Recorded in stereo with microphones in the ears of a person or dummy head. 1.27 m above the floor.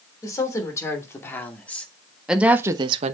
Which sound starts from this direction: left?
A woman speaking, at 0.2 s.